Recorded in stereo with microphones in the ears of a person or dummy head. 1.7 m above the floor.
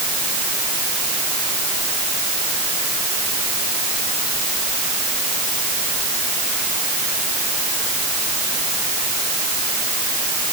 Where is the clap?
I don't hear a clap.